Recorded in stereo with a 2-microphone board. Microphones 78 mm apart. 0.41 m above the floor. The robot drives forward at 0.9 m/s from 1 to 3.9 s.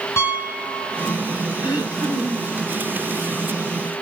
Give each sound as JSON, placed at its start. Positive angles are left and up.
{"t": 0.2, "sound": "a piano", "side_deg": 40, "distance_m": 4.0}
{"t": 1.6, "sound": "throat clearing", "side_deg": 55, "distance_m": 9.0}